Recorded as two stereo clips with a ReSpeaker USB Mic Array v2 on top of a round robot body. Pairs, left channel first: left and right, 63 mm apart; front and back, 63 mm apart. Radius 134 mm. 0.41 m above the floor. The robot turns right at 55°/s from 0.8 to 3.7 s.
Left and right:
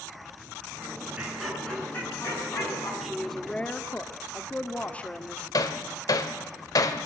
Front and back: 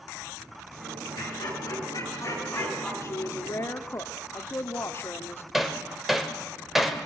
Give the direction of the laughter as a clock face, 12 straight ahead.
1 o'clock.